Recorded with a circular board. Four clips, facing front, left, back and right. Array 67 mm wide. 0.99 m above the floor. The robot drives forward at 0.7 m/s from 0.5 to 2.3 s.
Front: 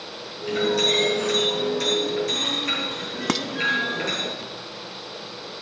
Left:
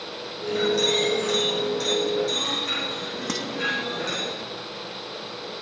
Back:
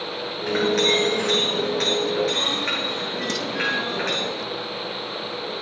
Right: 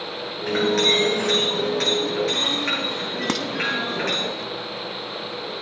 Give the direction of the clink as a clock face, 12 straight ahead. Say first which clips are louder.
Right 2 dB, back 2 dB; 4 o'clock.